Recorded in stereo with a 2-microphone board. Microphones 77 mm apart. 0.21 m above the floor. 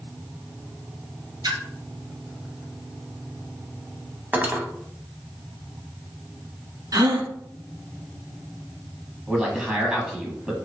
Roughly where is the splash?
Right.